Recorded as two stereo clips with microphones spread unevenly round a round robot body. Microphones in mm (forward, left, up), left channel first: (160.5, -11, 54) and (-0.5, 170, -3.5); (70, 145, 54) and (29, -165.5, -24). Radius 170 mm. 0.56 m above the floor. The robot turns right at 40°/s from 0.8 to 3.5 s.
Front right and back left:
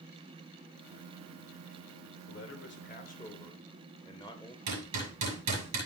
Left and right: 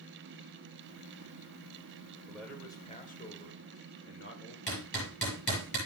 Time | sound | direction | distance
2.3 | a man speaking | 20° right | 3 m
4.7 | hammering | 170° left | 7 m